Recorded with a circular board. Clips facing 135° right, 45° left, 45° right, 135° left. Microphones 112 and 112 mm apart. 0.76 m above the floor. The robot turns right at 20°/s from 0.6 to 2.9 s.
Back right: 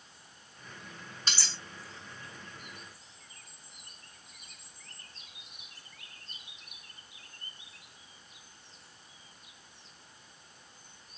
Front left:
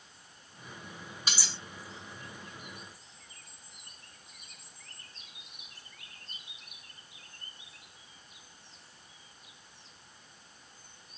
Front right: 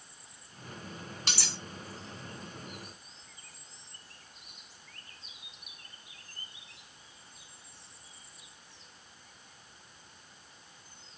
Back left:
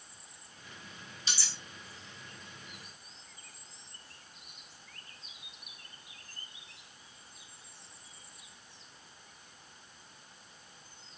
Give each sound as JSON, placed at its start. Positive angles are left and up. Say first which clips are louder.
{"t": 1.3, "sound": "cutlery clinking", "louder": "even, front right 2 dB", "azimuth_deg": -35, "distance_m": 0.9}